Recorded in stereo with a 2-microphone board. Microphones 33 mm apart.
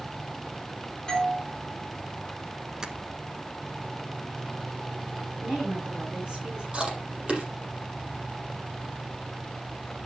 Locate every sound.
1.1 s a doorbell: 20° left (ahead or behind), 5 m
2.8 s tapping: 20° right (ahead or behind), 1.0 m
5.4 s a woman speaking: 25° right (ahead or behind), 6 m
6.7 s chewing: 35° right (ahead or behind), 5 m